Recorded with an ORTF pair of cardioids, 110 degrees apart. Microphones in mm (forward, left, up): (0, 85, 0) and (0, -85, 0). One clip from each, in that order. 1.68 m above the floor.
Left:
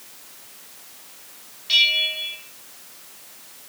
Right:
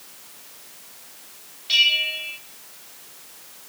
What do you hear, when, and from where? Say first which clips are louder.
1.7 s a bell: even; straight ahead, 2 m